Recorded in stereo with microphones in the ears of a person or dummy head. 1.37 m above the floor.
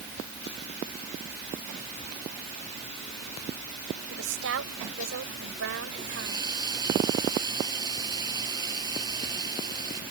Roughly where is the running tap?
Right.